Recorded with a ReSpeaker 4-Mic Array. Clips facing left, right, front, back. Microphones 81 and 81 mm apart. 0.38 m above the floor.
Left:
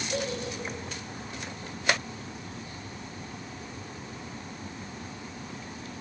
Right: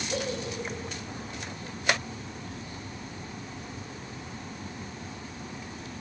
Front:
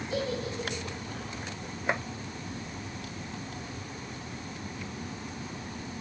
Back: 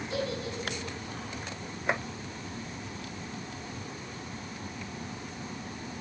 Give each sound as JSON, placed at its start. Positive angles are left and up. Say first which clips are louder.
{"t": 0.1, "sound": "a giggle", "louder": "even, front 2 dB", "azimuth_deg": -170, "distance_m": 1.6}